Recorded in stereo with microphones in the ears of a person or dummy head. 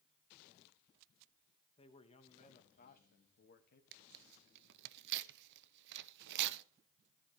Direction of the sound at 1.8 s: 25° left (ahead or behind).